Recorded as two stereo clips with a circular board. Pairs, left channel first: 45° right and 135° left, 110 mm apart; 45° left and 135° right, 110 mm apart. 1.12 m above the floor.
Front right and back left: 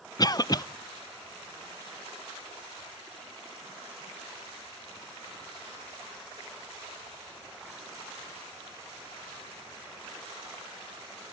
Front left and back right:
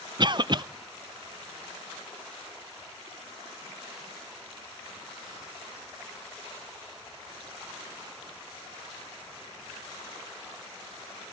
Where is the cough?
95° right, 0.6 m.